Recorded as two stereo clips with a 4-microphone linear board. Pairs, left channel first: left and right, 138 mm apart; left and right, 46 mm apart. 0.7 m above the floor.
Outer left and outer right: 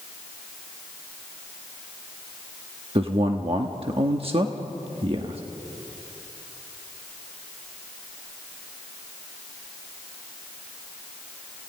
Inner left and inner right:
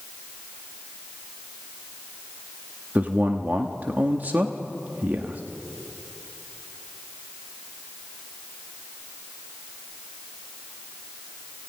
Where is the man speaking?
45° right (ahead or behind), 1.1 m.